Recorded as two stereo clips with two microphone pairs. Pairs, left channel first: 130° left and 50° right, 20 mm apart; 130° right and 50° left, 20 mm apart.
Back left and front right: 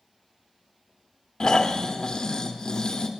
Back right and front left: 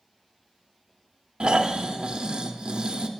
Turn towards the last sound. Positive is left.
turn(degrees=85)